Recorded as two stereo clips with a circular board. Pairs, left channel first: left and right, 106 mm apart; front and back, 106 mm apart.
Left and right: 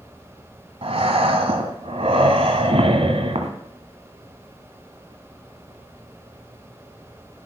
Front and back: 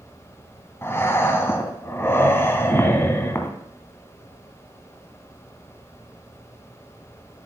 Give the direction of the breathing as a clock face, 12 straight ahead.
2 o'clock.